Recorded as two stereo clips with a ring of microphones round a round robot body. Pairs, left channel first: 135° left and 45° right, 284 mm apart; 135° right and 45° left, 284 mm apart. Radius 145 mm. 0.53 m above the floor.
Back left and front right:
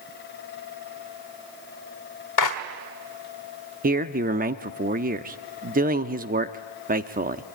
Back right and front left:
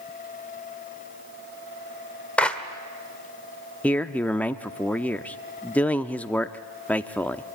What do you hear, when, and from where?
2.4 s a clap: 140° left, 1.5 m
3.8 s a man speaking: 55° right, 0.7 m